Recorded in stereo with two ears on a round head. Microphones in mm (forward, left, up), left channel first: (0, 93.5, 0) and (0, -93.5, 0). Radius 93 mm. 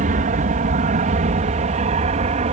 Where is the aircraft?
40° right (ahead or behind); by 2.5 s 35° right (ahead or behind).